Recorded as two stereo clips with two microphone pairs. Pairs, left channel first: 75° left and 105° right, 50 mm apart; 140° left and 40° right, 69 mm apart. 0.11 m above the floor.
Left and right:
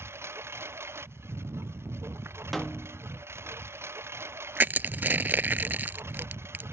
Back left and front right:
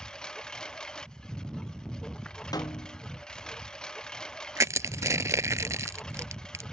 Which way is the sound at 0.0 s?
140° right.